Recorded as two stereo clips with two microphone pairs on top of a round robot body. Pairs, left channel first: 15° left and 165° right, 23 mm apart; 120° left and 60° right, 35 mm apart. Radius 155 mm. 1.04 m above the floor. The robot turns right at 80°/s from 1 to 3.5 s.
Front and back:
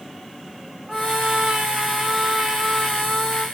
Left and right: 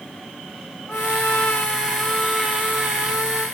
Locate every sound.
0.9 s a trumpet: 120° left, 6 m; by 3.5 s 45° right, 6 m